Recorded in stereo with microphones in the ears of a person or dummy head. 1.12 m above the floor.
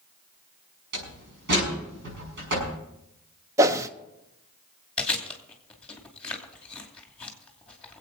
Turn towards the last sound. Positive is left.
turn(degrees=0)  # may be behind; listen again after turning